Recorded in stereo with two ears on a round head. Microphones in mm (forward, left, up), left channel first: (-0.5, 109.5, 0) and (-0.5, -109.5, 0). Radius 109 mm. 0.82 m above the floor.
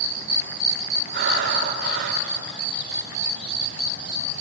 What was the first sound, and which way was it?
Breathing, 45° right (ahead or behind).